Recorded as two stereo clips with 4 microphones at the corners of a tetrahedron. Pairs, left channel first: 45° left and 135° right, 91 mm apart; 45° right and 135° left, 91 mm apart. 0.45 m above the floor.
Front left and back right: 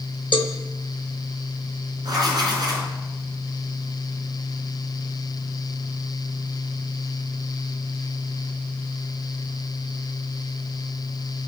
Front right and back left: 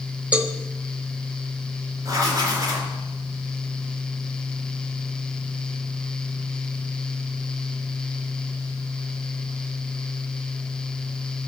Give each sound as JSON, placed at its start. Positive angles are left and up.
{"t": 0.3, "sound": "a cowbell", "azimuth_deg": 60, "distance_m": 1.0}
{"t": 2.0, "sound": "writing", "azimuth_deg": -175, "distance_m": 4.0}